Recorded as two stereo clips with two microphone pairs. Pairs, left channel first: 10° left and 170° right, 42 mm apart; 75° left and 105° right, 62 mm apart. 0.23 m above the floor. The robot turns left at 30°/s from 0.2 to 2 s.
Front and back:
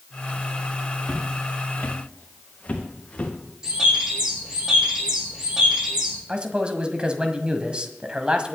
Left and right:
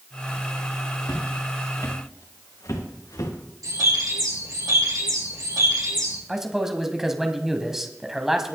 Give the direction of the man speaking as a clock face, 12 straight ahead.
6 o'clock.